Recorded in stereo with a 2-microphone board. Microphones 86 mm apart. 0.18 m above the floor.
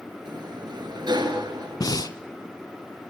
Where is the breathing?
45° left (ahead or behind), 0.9 m.